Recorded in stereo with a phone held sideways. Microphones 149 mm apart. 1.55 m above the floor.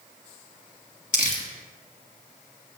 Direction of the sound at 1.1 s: 65° left (ahead or behind).